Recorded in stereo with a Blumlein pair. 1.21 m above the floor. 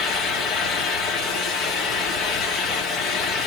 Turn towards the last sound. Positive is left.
turn(degrees=30)